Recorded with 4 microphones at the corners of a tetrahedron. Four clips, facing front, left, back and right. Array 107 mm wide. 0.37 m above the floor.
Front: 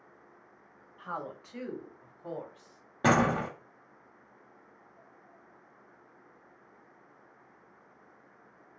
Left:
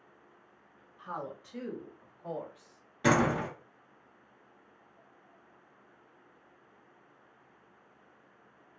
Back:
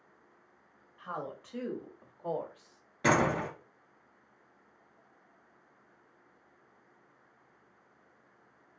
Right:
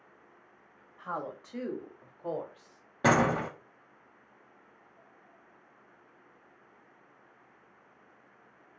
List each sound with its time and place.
1.0 s a woman speaking: 90° right, 1.3 m; by 2.8 s 145° right, 1.4 m
3.0 s a door slam: 50° right, 1.7 m